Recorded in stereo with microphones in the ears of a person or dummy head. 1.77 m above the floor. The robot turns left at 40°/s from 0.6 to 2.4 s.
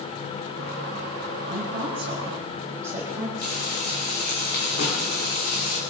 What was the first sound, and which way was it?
A woman speaking, 125° right.